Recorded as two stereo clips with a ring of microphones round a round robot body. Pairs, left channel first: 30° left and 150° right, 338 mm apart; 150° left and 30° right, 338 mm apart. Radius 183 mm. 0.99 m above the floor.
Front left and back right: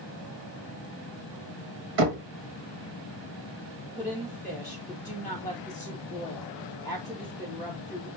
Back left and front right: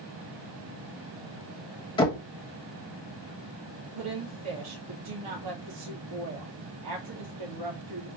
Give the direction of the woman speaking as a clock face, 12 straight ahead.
2 o'clock.